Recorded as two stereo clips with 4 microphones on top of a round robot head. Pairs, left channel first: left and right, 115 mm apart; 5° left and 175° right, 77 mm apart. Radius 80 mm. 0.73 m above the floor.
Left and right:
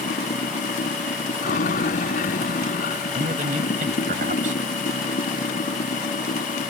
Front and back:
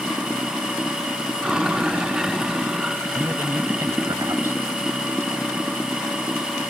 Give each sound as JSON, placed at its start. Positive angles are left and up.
{"t": 0.0, "sound": "running water", "azimuth_deg": 100}
{"t": 3.1, "sound": "a man speaking", "azimuth_deg": -110}